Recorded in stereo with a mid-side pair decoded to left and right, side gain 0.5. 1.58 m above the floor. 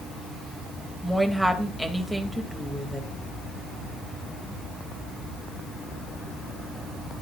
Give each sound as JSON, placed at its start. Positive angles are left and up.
{"t": 1.0, "sound": "a woman speaking", "azimuth_deg": 0, "distance_m": 2.5}